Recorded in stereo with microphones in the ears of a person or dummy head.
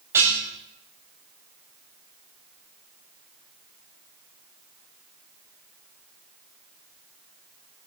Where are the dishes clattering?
15° right (ahead or behind), 6 m.